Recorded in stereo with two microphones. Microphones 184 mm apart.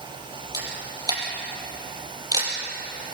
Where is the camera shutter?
20° right (ahead or behind), 4.5 m.